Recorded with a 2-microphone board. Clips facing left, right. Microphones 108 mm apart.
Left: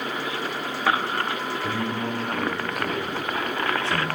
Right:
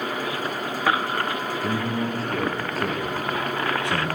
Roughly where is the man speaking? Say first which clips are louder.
Right 3 dB; right.